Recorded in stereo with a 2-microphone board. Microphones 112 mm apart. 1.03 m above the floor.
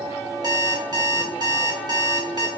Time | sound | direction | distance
0.4 | an alarm clock | 35° right (ahead or behind) | 1.1 m